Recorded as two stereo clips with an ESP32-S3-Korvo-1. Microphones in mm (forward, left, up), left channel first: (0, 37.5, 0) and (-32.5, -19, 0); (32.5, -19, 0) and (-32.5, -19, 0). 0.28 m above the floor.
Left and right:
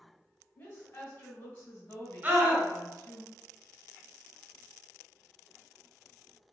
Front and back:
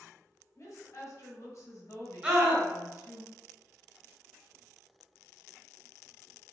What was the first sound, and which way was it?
A woman speaking, 25° left.